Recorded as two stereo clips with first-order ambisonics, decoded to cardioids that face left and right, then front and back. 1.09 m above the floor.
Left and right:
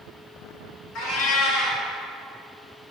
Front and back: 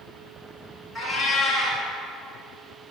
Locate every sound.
0.9 s a cat meowing: 80° left, 1.9 m